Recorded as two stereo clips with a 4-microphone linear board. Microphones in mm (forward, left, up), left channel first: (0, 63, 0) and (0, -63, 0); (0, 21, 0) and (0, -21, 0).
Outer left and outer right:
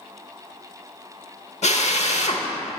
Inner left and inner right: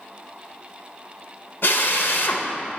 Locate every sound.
1.6 s a drill: 65° left (ahead or behind), 0.8 m